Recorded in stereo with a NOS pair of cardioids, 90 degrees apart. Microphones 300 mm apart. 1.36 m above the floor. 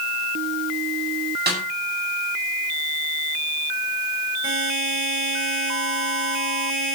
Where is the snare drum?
30° right, 10 m.